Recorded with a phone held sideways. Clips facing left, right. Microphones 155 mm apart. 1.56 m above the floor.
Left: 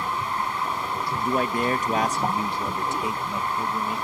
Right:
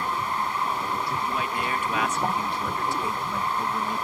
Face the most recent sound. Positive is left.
turn(degrees=0)  # may be behind; listen again after turning